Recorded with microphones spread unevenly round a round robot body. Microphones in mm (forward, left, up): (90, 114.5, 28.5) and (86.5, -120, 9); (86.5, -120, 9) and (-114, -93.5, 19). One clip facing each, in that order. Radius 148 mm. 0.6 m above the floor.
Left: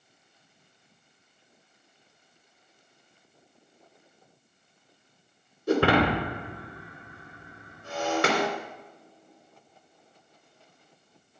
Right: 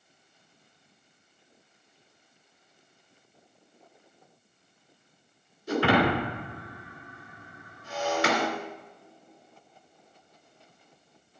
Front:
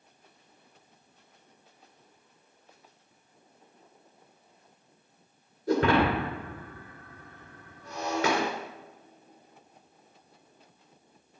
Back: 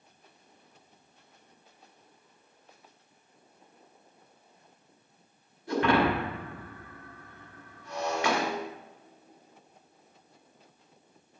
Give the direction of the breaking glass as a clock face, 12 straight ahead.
10 o'clock.